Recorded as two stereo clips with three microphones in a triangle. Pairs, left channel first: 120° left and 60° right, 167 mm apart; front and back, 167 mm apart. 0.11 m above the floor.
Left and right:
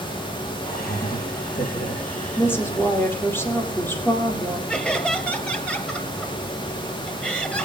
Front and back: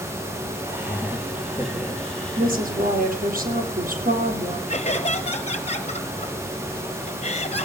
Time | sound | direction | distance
0.6 | laughter | 105° left | 4.5 m
2.4 | a woman speaking | 165° right | 3.5 m
4.7 | laughter | 40° left | 2 m